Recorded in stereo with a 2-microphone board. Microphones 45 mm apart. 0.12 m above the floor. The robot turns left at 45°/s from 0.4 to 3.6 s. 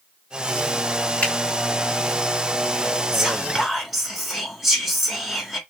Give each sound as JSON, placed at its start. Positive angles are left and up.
{"t": 1.2, "sound": "a finger snap", "side_deg": 30, "distance_m": 1.9}
{"t": 3.1, "sound": "whispering", "side_deg": -10, "distance_m": 1.1}